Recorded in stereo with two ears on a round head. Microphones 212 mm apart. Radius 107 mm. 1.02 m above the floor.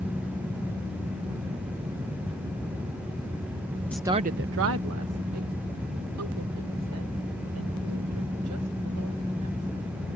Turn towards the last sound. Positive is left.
turn(degrees=-85)